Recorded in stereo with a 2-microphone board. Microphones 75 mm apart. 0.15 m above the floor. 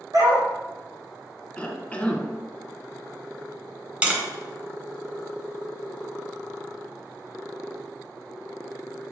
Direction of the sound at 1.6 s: 20° left (ahead or behind).